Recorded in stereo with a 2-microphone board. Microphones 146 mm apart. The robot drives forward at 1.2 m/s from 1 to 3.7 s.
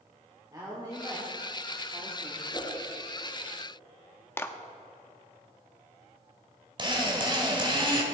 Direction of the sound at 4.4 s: 15° left (ahead or behind).